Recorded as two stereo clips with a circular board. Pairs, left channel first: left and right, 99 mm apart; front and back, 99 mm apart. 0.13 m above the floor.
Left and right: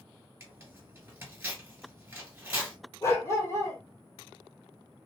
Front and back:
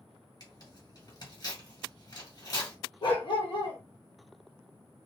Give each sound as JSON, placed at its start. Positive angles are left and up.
{"t": 0.4, "sound": "tearing paper", "azimuth_deg": -30, "distance_m": 2.0}
{"t": 3.0, "sound": "a dog barking", "azimuth_deg": 35, "distance_m": 1.2}